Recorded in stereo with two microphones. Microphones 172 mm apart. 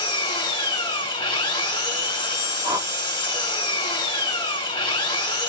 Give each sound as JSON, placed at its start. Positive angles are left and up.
{"t": 0.0, "sound": "an engine running", "side_deg": 30, "distance_m": 2.0}
{"t": 2.6, "sound": "a whoosh", "side_deg": -20, "distance_m": 1.8}